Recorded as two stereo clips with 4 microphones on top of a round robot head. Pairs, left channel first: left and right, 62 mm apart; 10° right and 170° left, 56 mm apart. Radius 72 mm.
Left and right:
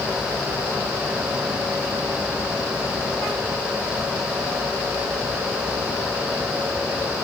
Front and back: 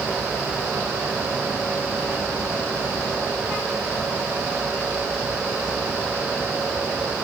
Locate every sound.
Only background noise.